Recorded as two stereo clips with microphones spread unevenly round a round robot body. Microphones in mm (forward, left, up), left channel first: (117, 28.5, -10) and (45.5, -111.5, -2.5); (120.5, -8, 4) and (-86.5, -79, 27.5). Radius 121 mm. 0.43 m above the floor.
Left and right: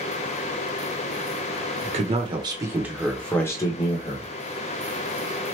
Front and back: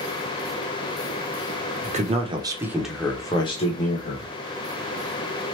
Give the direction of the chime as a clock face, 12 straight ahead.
I don't hear a chime.